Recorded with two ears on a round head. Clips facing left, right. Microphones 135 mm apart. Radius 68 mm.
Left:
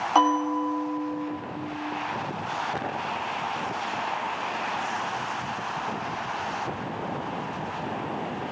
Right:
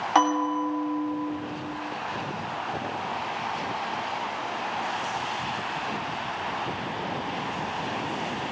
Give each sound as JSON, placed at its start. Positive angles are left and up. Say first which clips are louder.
{"t": 0.1, "sound": "a bell", "louder": "left 1 dB", "side_deg": 0, "distance_m": 3.5}